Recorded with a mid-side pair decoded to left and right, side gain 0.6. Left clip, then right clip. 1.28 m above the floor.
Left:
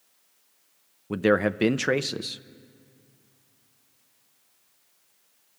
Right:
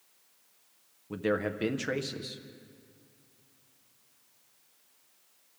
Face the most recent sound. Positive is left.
turn(degrees=45)